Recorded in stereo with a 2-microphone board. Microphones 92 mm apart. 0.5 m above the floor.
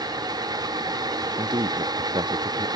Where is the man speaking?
60° right (ahead or behind); by 2.7 s 65° right (ahead or behind).